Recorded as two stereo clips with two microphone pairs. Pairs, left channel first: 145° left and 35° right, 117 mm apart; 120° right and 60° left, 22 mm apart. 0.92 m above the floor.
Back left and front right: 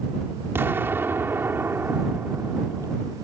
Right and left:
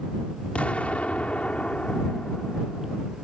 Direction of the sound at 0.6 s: 105° right.